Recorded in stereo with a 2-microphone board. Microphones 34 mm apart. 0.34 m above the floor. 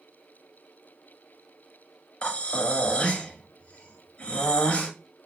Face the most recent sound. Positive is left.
turn(degrees=35)  # may be behind; listen again after turning